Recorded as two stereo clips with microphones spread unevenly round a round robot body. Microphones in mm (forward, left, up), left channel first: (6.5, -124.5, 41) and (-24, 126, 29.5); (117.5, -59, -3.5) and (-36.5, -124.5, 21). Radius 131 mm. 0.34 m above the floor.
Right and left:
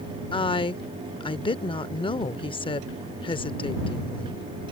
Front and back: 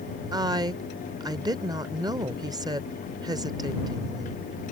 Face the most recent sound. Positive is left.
turn(degrees=-115)